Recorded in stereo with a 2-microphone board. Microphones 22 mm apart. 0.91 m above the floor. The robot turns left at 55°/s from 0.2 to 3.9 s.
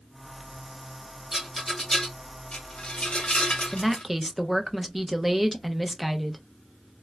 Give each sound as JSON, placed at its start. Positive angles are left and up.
{"t": 1.3, "sound": "a rattle", "side_deg": -10, "distance_m": 1.0}
{"t": 3.7, "sound": "a woman speaking", "side_deg": 5, "distance_m": 0.6}